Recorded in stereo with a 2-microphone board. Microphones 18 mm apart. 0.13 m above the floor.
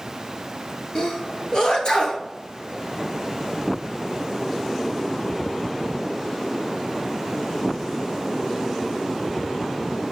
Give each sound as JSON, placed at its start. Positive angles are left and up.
{"t": 0.9, "sound": "a sneeze", "side_deg": 45, "distance_m": 1.7}